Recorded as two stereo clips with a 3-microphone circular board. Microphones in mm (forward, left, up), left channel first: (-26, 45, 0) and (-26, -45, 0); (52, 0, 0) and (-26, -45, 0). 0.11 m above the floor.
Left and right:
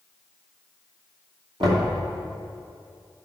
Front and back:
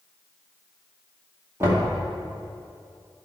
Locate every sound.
1.6 s knocking: 90° right, 2.5 m